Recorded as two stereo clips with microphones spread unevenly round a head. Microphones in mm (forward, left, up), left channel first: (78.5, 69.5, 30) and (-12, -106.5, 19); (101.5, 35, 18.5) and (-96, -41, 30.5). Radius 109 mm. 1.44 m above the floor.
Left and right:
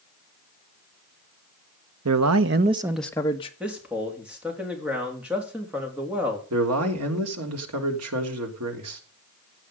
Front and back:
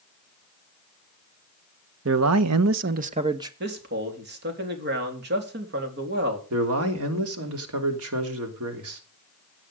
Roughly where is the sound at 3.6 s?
Behind.